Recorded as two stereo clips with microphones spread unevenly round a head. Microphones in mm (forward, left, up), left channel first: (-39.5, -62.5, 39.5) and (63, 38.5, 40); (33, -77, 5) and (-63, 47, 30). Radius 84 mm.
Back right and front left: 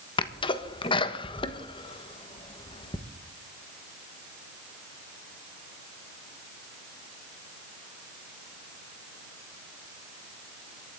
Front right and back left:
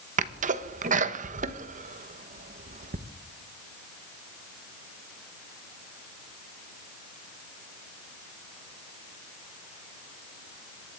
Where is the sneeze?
170° left, 1.2 m.